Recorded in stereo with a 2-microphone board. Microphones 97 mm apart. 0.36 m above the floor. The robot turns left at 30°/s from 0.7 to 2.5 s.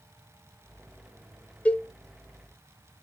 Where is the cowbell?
15° left (ahead or behind), 0.7 m.